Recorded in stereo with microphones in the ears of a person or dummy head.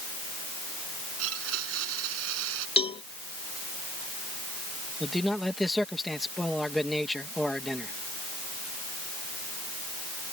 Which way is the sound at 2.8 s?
30° left (ahead or behind).